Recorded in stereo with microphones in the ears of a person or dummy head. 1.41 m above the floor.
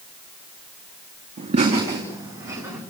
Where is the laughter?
30° right (ahead or behind), 2.5 m; by 2.8 s 5° right (ahead or behind), 4 m.